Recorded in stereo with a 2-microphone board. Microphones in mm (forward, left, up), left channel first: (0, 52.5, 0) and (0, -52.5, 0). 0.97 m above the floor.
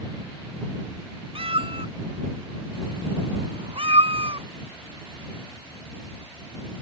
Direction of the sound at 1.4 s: 60° right (ahead or behind).